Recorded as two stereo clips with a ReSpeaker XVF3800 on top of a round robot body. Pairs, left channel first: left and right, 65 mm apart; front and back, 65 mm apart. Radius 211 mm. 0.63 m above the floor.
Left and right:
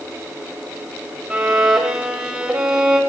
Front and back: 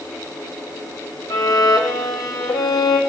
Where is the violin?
25° right, 0.6 m.